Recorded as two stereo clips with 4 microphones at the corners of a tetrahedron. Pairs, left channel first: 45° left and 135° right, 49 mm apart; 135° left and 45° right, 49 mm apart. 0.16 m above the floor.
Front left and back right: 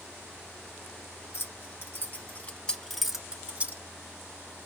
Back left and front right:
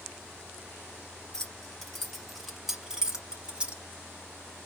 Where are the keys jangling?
55° left, 1.6 m; by 3.8 s 100° right, 1.1 m.